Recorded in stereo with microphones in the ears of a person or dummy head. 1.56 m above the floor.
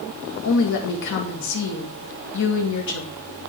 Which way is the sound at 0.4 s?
65° left (ahead or behind).